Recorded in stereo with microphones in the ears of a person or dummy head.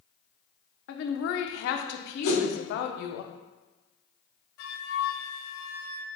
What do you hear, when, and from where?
0.9 s a woman speaking: 65° left (ahead or behind), 0.6 m
2.2 s a whoosh: 55° left (ahead or behind), 1.5 m
4.6 s a flute: 75° left (ahead or behind), 0.8 m